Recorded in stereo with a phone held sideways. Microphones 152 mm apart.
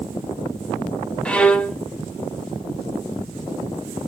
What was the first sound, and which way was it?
A violin, 10° left (ahead or behind).